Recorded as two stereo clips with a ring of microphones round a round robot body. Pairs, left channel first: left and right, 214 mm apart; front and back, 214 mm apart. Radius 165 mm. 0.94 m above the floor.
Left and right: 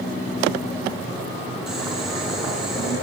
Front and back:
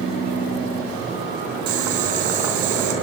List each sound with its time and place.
1.7 s boiling: straight behind, 3.5 m